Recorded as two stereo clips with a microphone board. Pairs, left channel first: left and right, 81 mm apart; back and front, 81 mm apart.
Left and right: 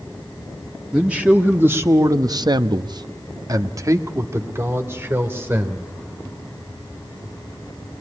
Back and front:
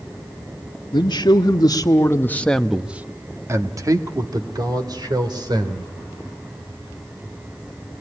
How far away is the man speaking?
About 1.6 m.